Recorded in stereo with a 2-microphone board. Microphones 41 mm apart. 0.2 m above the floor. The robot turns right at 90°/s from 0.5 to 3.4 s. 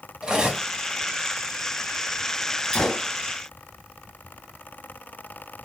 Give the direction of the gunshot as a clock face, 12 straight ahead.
7 o'clock.